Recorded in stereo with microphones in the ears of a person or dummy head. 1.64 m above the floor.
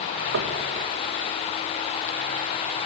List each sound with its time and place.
0.3 s knocking: 70° right (ahead or behind), 2 m